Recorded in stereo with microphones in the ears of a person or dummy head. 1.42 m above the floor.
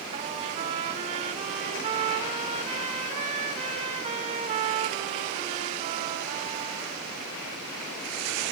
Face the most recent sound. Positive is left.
turn(degrees=-35)  # may be behind; listen again after turning